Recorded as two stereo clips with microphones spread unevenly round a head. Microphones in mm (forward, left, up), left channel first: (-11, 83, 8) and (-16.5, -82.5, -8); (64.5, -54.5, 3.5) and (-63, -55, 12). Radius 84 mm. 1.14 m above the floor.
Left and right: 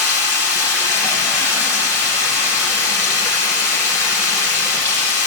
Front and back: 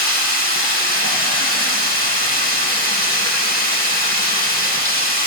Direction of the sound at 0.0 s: 15° left.